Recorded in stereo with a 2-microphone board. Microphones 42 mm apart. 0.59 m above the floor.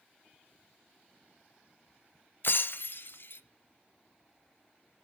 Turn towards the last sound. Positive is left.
turn(degrees=60)  # may be behind; listen again after turning